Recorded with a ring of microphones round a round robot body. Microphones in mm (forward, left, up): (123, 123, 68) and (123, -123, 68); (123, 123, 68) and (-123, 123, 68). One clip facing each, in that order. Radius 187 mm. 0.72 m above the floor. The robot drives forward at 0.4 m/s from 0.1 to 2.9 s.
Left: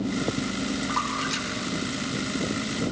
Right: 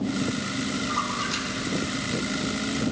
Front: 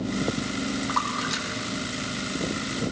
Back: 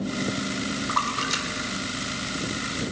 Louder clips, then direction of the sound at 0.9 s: Left 1 dB, front 1 dB; 125° left.